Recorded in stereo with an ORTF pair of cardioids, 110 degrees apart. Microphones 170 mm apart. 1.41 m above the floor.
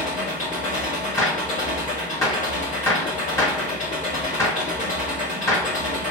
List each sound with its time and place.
0.0 s an engine running: 50° left, 1.4 m
1.2 s a gunshot: 15° left, 1.4 m